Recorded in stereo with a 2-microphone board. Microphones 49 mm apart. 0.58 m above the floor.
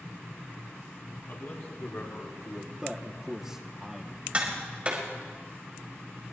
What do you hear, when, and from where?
1.3 s a man speaking: 80° left, 4 m; by 2.7 s 75° left (ahead or behind), 2.5 m
2.8 s a man speaking: 10° right (ahead or behind), 0.9 m
4.3 s tapping: 30° right (ahead or behind), 2.5 m